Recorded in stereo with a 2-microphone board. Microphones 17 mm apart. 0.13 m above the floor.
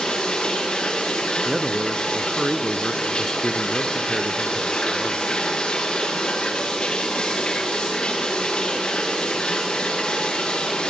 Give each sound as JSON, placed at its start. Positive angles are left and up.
{"t": 0.0, "sound": "running water", "side_deg": 70, "distance_m": 7.0}
{"t": 1.4, "sound": "a man speaking", "side_deg": -10, "distance_m": 1.7}